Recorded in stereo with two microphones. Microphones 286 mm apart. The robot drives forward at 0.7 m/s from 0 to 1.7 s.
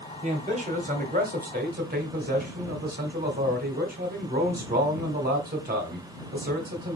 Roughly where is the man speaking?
Right.